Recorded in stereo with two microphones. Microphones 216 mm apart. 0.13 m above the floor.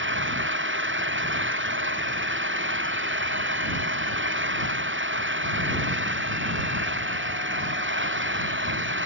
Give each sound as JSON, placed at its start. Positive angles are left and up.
{"t": 0.0, "sound": "an engine running", "side_deg": -65}